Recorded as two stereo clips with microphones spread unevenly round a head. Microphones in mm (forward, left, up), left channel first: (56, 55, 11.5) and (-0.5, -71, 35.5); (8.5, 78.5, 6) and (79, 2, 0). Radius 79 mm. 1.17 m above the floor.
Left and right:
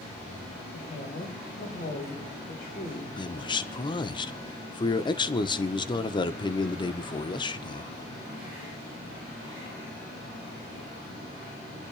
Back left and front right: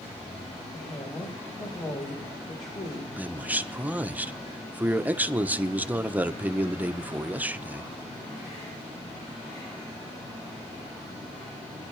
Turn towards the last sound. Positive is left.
turn(degrees=25)